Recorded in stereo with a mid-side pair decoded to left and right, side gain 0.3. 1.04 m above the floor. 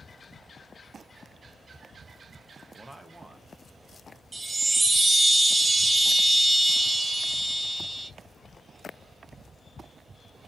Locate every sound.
2.8 s a man speaking: 25° right, 0.7 m; by 4.2 s 20° right, 1.5 m
4.3 s a chime: 35° right, 0.7 m